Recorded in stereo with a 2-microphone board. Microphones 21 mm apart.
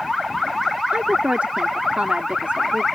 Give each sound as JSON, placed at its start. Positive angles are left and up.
{"t": 0.9, "sound": "a woman speaking", "side_deg": -80}